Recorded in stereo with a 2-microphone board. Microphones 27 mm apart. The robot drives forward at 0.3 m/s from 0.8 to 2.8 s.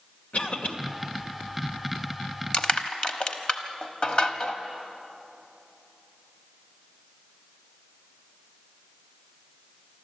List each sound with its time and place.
0.3 s a cough: 70° left (ahead or behind), 2 m
2.5 s crushing: 45° left (ahead or behind), 1.2 m